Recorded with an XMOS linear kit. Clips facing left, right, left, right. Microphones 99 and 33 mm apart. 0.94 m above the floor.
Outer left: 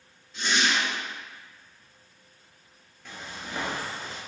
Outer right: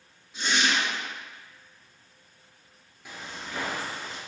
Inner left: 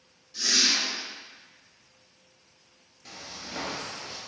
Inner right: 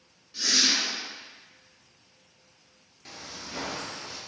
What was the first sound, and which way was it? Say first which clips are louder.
A whoosh: even, even; 15° right (ahead or behind).